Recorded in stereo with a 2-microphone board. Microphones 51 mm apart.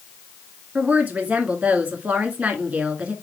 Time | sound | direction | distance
0.8 | a woman speaking | 30° right (ahead or behind) | 2 m